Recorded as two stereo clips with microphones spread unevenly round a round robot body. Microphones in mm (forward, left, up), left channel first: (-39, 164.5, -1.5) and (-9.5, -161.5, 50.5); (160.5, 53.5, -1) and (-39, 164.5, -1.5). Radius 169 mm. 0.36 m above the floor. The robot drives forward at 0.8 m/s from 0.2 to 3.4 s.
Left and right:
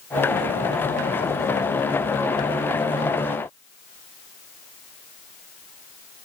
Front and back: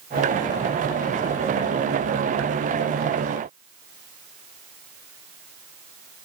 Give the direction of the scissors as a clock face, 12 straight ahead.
No scissors in this recording.